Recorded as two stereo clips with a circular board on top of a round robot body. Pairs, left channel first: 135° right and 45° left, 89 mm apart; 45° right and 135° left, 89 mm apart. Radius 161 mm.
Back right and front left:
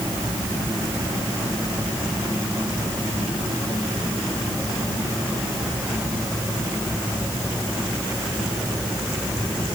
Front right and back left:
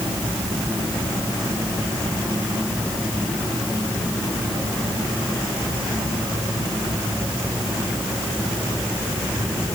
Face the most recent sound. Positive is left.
No sound to turn to.